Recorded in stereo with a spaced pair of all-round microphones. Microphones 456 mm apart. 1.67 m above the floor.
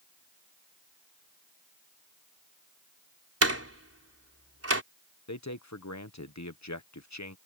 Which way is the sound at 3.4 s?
30° right (ahead or behind).